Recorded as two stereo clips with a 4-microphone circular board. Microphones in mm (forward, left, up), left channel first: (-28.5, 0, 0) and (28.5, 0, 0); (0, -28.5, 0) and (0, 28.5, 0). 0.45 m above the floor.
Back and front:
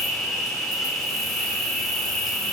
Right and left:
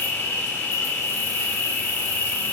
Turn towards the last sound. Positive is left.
turn(degrees=-95)